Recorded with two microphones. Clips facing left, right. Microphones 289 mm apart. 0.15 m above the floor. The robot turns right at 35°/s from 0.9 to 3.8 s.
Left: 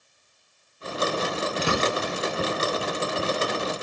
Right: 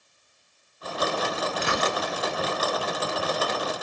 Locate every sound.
1.6 s a gunshot: 40° left (ahead or behind), 0.6 m; by 2.0 s 30° left (ahead or behind), 0.6 m